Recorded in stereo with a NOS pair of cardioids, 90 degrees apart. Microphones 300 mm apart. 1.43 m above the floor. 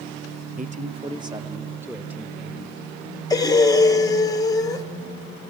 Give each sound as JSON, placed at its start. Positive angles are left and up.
{"t": 0.6, "sound": "a man speaking", "azimuth_deg": -30, "distance_m": 0.8}
{"t": 3.3, "sound": "breathing", "azimuth_deg": 15, "distance_m": 1.1}